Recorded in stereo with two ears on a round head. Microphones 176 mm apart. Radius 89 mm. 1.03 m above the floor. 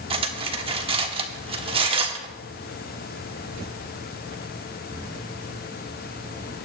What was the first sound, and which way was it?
Cutlery clinking, 30° right (ahead or behind).